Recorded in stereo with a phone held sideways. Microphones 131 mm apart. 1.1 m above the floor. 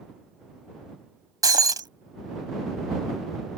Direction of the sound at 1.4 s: 30° right (ahead or behind).